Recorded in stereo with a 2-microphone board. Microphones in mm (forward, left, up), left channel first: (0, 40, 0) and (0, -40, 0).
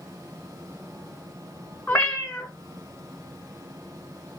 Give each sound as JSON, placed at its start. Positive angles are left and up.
{"t": 1.9, "sound": "a cat meowing", "side_deg": 25, "distance_m": 1.1}